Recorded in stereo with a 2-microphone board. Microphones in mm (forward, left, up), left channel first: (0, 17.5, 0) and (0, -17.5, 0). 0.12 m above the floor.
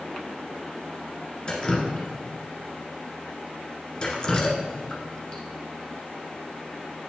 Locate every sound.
1.5 s dripping: 25° left (ahead or behind), 1.2 m